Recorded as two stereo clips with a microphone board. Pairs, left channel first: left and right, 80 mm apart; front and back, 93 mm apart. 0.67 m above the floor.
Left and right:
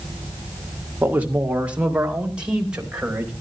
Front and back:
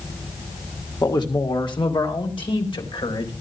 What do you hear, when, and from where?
1.0 s a man speaking: 25° right, 1.7 m; by 3.3 s 10° right, 4.5 m